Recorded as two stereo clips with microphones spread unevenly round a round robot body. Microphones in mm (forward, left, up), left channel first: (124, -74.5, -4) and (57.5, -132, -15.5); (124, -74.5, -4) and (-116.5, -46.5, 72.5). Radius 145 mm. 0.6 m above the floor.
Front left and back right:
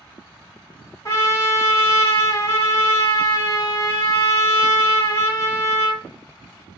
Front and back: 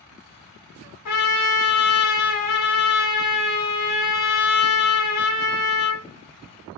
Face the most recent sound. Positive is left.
turn(degrees=-20)